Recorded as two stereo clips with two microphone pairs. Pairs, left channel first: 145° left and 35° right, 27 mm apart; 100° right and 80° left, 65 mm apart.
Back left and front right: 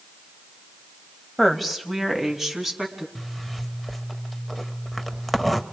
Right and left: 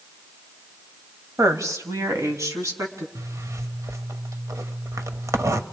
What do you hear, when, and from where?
1.4 s a woman speaking: 65° left, 2 m; by 3.0 s 45° left, 4 m
3.1 s a zipper: 60° left, 1.0 m